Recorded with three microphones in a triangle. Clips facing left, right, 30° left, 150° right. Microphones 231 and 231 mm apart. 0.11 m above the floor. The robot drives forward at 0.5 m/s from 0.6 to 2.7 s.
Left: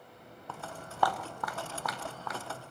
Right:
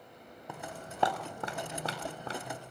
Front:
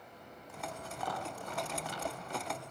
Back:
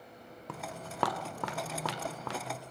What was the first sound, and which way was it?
Footsteps, 165° right.